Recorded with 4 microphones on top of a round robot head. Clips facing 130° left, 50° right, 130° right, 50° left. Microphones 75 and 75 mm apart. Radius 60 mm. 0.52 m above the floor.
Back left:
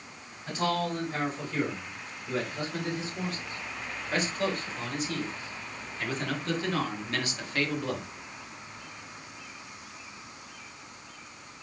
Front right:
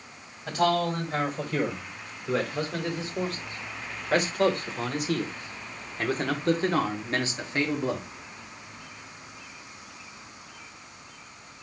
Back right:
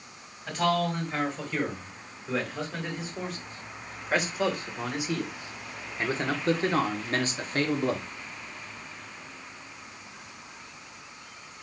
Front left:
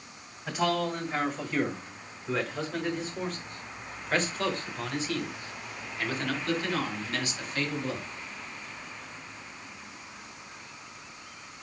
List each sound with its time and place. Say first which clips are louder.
0.5 s a man speaking: front right 5 dB, back right 2 dB; 30° right, 4.5 m; by 8.1 s 120° right, 1.8 m